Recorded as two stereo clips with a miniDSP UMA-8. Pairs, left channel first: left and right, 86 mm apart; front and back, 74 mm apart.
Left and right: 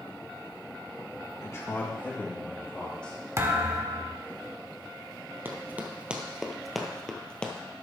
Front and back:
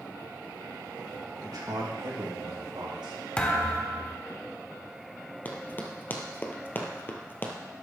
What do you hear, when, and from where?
1.4 s a man speaking: 145° left, 2.0 m; by 3.1 s 170° left, 4 m
3.4 s a thud: 65° right, 1.2 m
5.5 s running footsteps: 45° right, 1.7 m; by 7.5 s 30° left, 1.6 m